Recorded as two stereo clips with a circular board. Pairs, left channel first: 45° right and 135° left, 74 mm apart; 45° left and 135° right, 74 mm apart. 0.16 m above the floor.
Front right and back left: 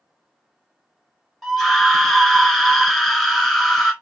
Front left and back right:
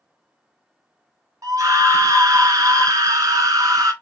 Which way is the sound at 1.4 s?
130° right.